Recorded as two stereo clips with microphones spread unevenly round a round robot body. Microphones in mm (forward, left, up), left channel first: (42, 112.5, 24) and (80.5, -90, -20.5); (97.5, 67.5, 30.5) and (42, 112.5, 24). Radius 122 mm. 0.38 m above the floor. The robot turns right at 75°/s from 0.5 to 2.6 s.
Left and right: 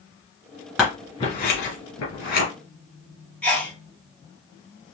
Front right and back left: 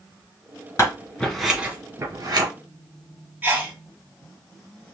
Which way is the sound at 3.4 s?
165° right.